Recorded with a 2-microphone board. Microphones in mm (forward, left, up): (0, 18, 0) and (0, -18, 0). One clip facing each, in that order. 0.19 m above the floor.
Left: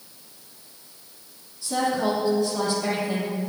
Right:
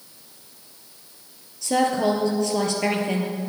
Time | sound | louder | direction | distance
1.6 | a woman speaking | right 3 dB | 60° right (ahead or behind) | 3.5 m